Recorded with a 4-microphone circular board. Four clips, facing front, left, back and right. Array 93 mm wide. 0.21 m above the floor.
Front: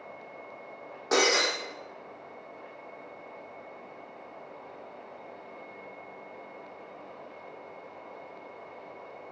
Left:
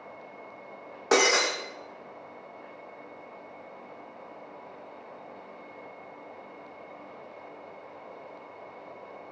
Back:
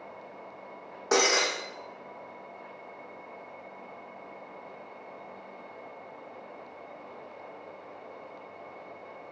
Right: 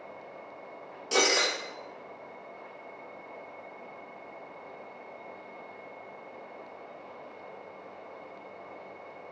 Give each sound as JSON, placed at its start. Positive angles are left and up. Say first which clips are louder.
{"t": 1.1, "sound": "breaking glass", "louder": "left 4 dB, even", "azimuth_deg": 100, "distance_m": 7.5}